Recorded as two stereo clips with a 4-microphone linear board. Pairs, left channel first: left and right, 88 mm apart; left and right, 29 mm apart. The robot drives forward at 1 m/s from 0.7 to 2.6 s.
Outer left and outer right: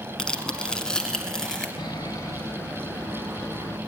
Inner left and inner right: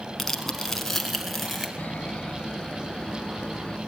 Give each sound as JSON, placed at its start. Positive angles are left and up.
{"t": 0.2, "sound": "tearing paper", "side_deg": 10, "distance_m": 1.5}
{"t": 1.8, "sound": "sawing", "side_deg": 65, "distance_m": 0.7}